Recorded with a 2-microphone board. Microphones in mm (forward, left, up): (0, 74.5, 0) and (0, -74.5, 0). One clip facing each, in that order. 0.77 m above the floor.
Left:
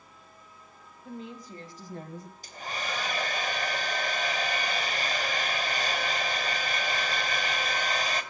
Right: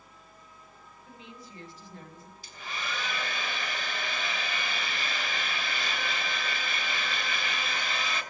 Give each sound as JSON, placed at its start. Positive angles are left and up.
{"t": 1.1, "sound": "a woman speaking", "side_deg": 45, "distance_m": 3.5}
{"t": 2.4, "sound": "a hair dryer", "side_deg": 45, "distance_m": 3.5}